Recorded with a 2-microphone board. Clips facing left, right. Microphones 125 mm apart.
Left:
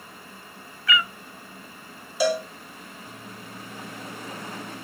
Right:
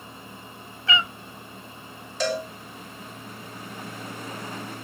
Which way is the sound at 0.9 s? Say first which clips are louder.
Left 1 dB; 25° right (ahead or behind).